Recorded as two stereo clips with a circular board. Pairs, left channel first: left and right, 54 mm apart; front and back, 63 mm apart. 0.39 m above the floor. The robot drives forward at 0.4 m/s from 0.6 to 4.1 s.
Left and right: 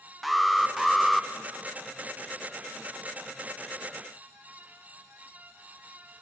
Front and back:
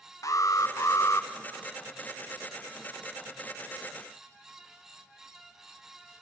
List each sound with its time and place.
0.2 s an alarm: straight ahead, 1.0 m